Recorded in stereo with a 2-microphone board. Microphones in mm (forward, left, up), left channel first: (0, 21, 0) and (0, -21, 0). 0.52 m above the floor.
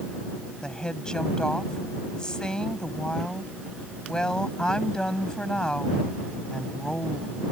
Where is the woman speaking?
20° left (ahead or behind).